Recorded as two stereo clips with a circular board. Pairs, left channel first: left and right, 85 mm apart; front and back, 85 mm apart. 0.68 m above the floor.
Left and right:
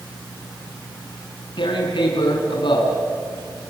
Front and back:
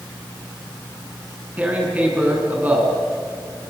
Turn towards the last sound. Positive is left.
turn(degrees=110)